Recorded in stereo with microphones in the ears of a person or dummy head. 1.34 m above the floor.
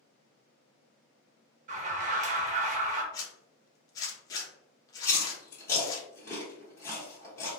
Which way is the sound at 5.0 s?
15° left (ahead or behind).